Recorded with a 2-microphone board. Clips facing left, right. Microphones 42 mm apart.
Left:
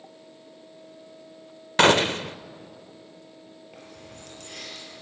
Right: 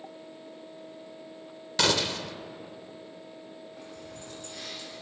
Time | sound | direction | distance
1.8 | a gunshot | 40° left (ahead or behind) | 0.5 m
3.7 | keys jangling | 70° left (ahead or behind) | 8.5 m